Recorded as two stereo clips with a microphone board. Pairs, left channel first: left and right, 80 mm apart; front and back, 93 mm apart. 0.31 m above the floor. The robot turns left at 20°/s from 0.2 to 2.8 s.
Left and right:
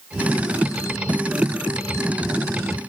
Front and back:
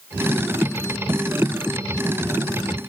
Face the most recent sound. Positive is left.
No sound to turn to.